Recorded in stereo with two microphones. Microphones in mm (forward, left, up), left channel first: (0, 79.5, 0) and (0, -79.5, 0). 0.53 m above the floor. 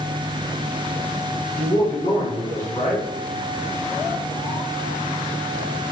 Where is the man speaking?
60° left (ahead or behind), 2 m.